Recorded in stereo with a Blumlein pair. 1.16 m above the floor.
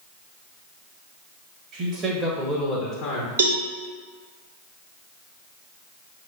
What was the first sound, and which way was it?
A man speaking, 35° right.